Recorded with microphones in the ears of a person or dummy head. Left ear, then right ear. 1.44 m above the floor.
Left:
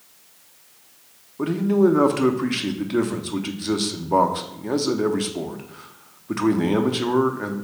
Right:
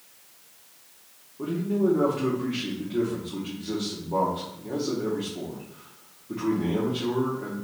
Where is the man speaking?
65° left (ahead or behind), 0.7 m.